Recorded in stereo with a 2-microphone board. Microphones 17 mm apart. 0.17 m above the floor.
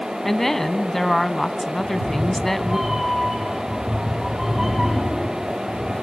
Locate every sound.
0.2 s a woman speaking: 20° left (ahead or behind), 1.1 m
1.8 s a cat meowing: 10° right (ahead or behind), 8 m